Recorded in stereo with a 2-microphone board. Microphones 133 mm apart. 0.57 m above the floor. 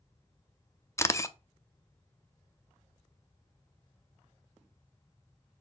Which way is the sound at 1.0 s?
20° left (ahead or behind).